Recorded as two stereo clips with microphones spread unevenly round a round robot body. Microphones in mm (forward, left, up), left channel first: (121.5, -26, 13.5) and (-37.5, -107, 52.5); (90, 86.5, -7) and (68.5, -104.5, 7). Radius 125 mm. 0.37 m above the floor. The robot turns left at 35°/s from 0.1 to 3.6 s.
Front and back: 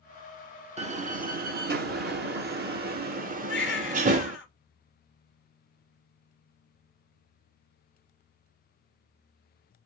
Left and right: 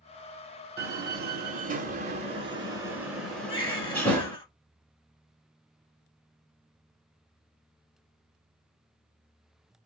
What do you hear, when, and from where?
0.8 s a door slam: 100° right, 0.9 m; by 4.4 s 160° left, 0.9 m
3.5 s a baby crying: 25° left, 1.6 m; by 4.5 s 20° left, 1.6 m